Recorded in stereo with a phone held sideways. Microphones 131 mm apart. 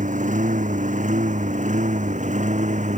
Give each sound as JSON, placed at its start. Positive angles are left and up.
{"t": 0.0, "sound": "a lawn mower", "side_deg": -75}